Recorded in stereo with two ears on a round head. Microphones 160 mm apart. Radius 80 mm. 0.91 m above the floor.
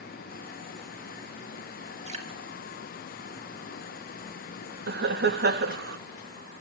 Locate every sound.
2.1 s dripping: 40° right (ahead or behind), 2.5 m
4.9 s laughter: 60° right (ahead or behind), 1.3 m